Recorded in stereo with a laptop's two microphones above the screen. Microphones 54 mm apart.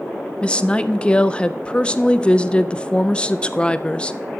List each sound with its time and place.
0.4 s a woman speaking: 20° left (ahead or behind), 0.5 m